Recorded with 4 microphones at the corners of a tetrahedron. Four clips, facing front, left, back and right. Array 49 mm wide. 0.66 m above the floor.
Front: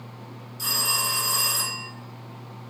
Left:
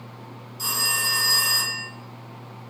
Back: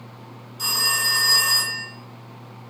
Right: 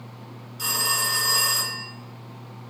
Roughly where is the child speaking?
No child speaking in this recording.